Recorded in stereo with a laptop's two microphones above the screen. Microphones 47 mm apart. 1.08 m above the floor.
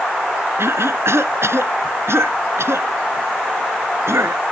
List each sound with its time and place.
0.6 s a cough: 70° right (ahead or behind)